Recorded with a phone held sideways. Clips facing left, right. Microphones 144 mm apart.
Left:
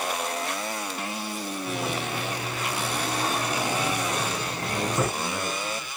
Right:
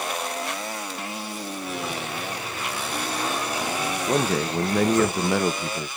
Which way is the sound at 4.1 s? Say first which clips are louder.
Right 7 dB; 85° right.